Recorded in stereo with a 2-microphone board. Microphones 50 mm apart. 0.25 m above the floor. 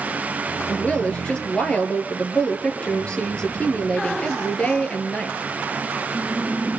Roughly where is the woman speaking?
Left.